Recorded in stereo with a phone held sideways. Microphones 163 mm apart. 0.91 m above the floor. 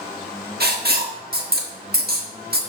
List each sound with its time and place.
0.6 s writing: 75° right (ahead or behind), 1.4 m